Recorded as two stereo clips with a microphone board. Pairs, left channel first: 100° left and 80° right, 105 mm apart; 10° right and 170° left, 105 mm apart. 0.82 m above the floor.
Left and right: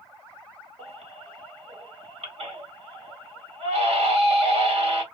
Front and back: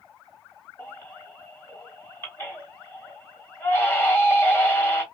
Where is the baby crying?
80° right, 1.3 m.